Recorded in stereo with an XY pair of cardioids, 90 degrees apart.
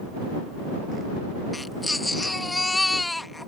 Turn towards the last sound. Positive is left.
turn(degrees=15)